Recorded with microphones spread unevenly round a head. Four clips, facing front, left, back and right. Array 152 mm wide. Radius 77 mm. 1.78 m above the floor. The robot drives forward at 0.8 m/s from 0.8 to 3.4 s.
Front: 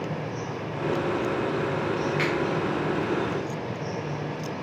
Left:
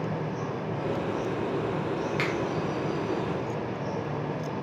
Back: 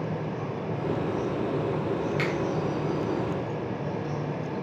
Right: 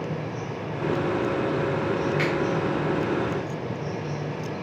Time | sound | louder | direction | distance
2.2 | a finger snap | right 4 dB, front 2 dB | 155° left | 1.1 m